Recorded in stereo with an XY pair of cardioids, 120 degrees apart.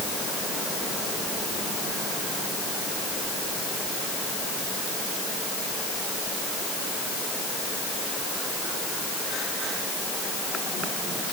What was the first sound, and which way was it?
Only background noise.